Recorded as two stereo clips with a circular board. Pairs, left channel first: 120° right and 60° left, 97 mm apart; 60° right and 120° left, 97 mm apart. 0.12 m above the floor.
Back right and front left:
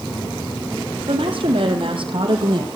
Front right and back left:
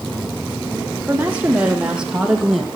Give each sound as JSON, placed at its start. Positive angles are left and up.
{"t": 1.1, "sound": "a woman speaking", "azimuth_deg": 50, "distance_m": 5.0}